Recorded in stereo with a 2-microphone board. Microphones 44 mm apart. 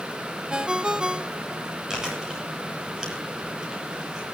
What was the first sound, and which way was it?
A ringtone, 20° right (ahead or behind).